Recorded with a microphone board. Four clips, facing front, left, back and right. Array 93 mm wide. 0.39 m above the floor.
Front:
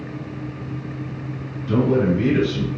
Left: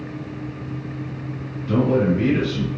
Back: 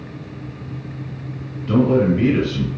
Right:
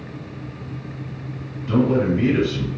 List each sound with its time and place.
1.7 s a man speaking: 160° right, 1.5 m